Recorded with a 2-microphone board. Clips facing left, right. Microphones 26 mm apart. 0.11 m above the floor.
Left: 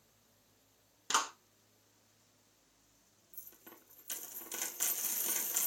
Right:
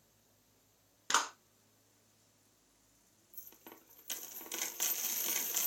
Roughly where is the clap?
Centre.